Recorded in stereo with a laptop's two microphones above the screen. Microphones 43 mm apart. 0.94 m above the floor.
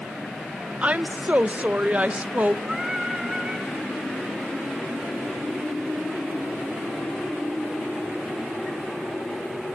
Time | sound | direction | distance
0.8 | a woman speaking | 30° right (ahead or behind) | 0.6 m
2.6 | singing | 15° right (ahead or behind) | 4.5 m